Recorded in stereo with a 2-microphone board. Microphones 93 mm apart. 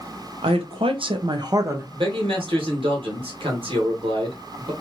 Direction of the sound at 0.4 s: 75° right (ahead or behind).